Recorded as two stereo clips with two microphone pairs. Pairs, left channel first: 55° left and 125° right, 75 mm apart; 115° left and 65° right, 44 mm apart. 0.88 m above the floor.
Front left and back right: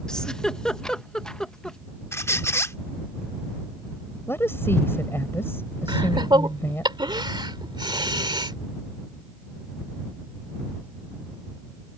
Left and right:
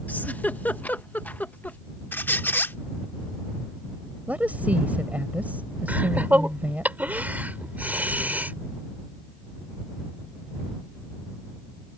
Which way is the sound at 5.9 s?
115° right.